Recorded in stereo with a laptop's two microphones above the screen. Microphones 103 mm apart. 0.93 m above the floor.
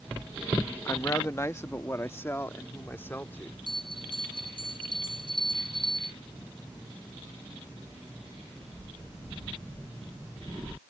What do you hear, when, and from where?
0.8 s a woman speaking: 30° left (ahead or behind); by 3.6 s 20° left (ahead or behind)
3.7 s a bell: 55° left (ahead or behind)